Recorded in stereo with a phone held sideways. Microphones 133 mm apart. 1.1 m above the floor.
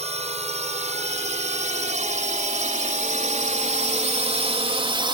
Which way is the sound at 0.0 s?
55° right (ahead or behind).